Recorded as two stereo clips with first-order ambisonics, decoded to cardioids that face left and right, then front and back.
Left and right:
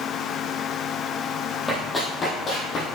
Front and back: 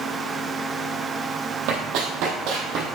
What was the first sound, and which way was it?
Running footsteps, 175° left.